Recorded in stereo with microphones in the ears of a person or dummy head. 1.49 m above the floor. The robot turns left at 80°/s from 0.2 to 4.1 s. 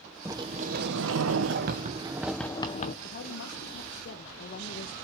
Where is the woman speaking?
140° left, 1.1 m; by 4.9 s 55° left, 1.1 m.